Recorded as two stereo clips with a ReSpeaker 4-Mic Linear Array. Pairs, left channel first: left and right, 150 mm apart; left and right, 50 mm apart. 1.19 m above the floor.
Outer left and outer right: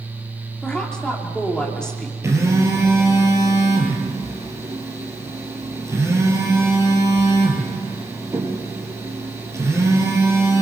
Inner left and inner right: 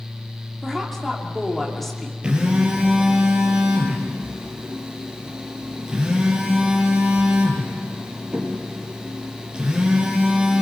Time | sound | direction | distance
0.6 | a woman speaking | 5° left (ahead or behind) | 2.5 m
2.2 | a phone buzzing | 20° right (ahead or behind) | 4 m